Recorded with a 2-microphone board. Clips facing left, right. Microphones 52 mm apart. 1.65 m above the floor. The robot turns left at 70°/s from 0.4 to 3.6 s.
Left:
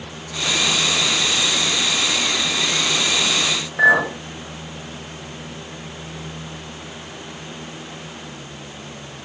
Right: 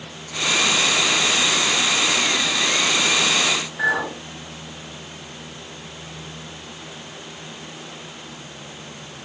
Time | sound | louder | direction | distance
3.8 | a clink | left 9 dB | 65° left (ahead or behind) | 3 m